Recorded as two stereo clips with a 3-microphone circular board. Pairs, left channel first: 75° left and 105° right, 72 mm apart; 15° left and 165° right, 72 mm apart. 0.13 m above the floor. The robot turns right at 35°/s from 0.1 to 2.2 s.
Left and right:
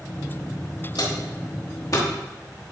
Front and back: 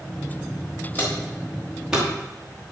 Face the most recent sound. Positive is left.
turn(degrees=125)